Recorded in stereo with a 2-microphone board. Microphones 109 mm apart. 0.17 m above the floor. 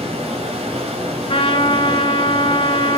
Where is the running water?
65° right (ahead or behind), 4 m.